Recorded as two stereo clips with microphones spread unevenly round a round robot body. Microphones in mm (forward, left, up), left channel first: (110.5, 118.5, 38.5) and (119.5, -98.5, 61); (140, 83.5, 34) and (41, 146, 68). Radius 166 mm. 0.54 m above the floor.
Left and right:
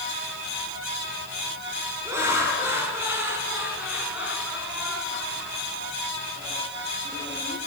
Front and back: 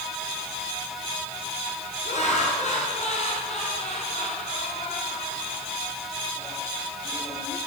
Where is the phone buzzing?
I don't hear a phone buzzing.